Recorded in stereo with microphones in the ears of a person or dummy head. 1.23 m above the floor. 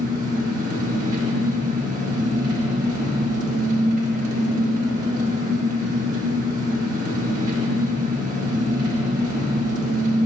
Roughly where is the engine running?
Right.